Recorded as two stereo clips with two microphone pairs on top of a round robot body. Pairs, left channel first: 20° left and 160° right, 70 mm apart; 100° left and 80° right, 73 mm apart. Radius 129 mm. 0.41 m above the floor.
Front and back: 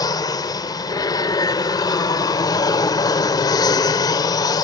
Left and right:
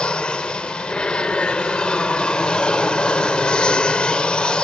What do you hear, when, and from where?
0.0 s an aircraft: 20° left